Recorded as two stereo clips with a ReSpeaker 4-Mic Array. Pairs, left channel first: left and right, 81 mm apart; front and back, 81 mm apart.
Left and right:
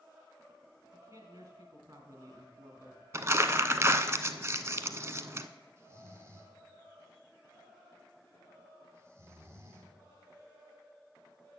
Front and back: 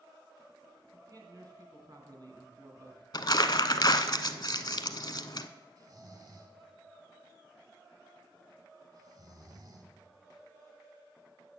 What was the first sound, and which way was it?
A man speaking, 140° right.